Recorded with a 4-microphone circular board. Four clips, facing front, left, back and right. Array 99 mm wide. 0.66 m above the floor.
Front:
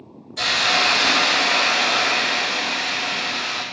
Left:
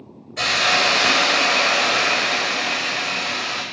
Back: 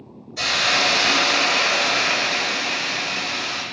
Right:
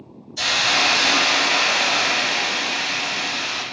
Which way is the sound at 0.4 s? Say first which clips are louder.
Left 2 dB, front 1 dB; 100° left.